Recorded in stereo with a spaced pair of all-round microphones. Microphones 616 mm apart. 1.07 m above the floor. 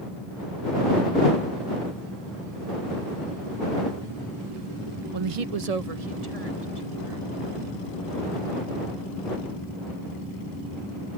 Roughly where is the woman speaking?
Right.